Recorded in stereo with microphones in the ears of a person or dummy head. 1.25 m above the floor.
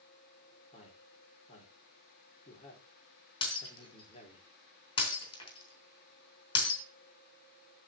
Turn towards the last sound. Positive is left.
turn(degrees=25)  # may be behind; listen again after turning